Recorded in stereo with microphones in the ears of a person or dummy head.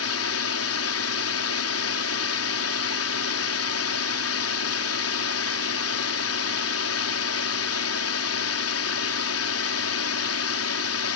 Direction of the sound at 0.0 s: 70° left (ahead or behind).